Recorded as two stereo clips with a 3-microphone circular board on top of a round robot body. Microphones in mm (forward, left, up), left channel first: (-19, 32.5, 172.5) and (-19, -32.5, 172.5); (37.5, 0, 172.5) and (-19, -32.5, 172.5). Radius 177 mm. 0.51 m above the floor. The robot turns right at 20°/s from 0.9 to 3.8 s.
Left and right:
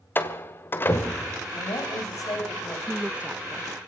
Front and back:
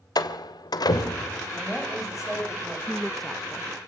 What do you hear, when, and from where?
0.1 s a door slam: 35° left, 2 m; by 1.4 s 45° left, 2 m
1.6 s a woman speaking: 110° left, 5 m; by 2.8 s 135° left, 5 m
2.9 s a woman speaking: 65° right, 0.9 m; by 3.7 s 50° right, 0.9 m